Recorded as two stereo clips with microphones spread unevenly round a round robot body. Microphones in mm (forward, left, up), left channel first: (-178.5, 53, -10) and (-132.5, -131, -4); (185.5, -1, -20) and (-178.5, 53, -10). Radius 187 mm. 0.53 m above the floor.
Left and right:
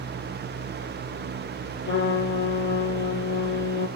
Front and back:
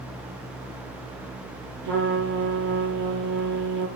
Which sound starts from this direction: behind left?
A trumpet, at 1.8 s.